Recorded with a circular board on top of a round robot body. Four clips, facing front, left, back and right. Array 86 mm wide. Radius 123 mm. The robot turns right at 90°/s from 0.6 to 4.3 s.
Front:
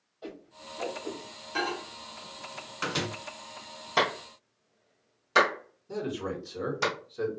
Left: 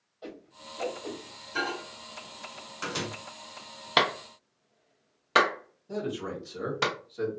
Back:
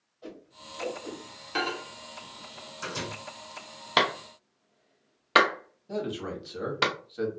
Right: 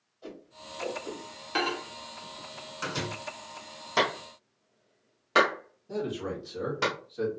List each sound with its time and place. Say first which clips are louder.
0.2 s a whoosh: left 1 dB, front 2 dB; 55° left, 1.5 m; by 1.2 s 115° left, 1.5 m
1.6 s a microwave: right 2 dB, back 1 dB; 115° right, 0.7 m; by 3.1 s 20° left, 0.7 m
4.0 s a clap: left 1 dB, back 1 dB; 130° left, 0.8 m; by 6.9 s 160° left, 0.8 m
5.9 s a man speaking: right 1 dB, even; straight behind, 1.7 m